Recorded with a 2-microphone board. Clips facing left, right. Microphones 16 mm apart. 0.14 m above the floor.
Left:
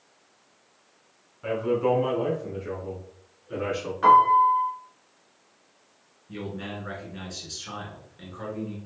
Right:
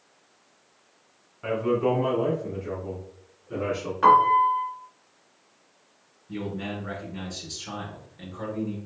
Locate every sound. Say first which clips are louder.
1.4 s a man speaking: even; 10° right (ahead or behind), 1.5 m; by 3.9 s 30° left (ahead or behind), 1.9 m
4.0 s a piano: left 1 dB; 10° right (ahead or behind), 1.3 m
6.3 s a man speaking: right 3 dB; 15° left (ahead or behind), 1.4 m